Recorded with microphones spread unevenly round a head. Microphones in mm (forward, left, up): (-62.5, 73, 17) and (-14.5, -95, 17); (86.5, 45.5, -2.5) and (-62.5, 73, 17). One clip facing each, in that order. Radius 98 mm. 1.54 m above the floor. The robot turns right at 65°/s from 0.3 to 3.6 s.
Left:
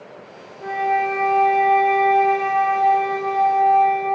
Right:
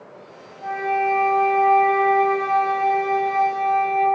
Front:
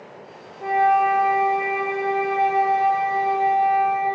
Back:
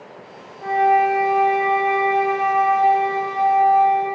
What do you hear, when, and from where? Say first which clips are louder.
0.6 s a flute: left 1 dB, back 2 dB; 55° left, 4 m; by 4.1 s 110° right, 4 m